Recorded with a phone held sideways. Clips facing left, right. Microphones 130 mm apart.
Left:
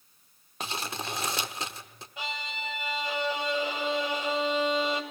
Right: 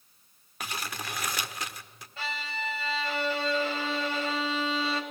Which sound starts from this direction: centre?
A violin, at 2.2 s.